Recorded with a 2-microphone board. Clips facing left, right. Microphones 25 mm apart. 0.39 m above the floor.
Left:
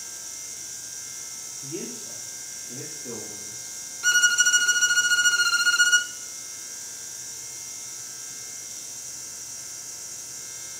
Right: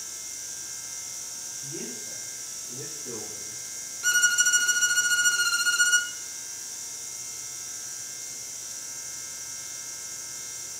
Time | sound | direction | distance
1.6 | a man speaking | 80° left | 8.5 m
4.0 | a violin | 15° left (ahead or behind) | 0.5 m